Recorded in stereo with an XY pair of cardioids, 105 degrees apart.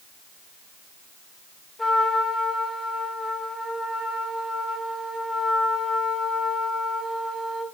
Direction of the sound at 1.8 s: 10° left.